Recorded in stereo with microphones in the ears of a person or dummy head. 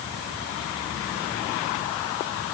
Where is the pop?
No pop in this recording.